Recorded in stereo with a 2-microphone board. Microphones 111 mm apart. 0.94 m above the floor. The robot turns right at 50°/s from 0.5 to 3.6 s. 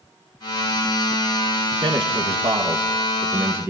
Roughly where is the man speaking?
Behind right.